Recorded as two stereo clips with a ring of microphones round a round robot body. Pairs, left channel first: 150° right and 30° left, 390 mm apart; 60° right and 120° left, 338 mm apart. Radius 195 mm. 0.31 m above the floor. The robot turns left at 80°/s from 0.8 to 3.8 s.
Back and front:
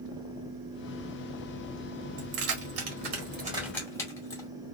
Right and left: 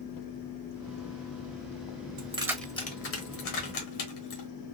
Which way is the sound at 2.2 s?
60° left.